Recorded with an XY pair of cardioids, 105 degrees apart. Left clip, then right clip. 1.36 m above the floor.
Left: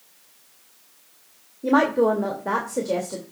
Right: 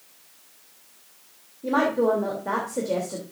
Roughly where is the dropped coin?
No dropped coin in this recording.